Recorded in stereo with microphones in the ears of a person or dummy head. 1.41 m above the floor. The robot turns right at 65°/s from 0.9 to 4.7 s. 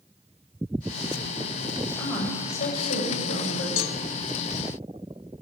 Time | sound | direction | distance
2.0 | a woman speaking | 15° left | 5.5 m
3.8 | a cowbell | 85° left | 0.8 m